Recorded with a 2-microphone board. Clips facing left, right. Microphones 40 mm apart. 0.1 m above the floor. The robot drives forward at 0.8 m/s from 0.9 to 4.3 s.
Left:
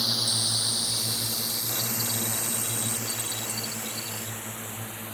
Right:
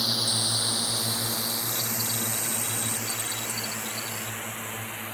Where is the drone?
10° right (ahead or behind); by 5.2 s 65° right (ahead or behind).